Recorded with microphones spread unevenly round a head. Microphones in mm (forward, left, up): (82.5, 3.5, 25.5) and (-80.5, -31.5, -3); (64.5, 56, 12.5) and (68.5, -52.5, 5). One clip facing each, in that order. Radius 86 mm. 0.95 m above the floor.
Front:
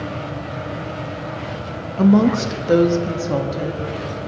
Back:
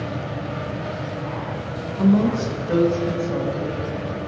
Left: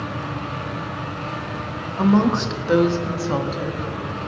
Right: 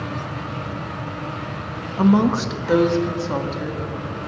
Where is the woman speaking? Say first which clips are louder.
Front 4 dB, right 1 dB; 15° right, 1.3 m; by 4.3 s 15° left, 2.5 m.